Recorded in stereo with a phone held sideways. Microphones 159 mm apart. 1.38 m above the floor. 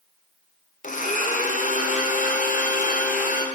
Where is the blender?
55° left (ahead or behind), 0.5 m.